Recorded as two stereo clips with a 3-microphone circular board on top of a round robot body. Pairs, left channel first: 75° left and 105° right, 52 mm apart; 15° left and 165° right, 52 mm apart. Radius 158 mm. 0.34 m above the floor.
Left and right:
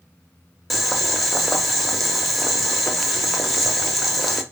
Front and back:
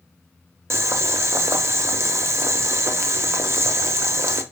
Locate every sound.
0.7 s boiling: 165° left, 0.7 m